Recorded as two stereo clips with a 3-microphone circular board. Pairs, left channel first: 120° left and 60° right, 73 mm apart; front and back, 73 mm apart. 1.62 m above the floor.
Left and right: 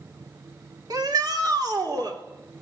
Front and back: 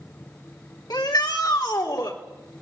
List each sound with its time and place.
0.9 s a shout: 25° right, 3 m; by 2.2 s 30° right, 4.5 m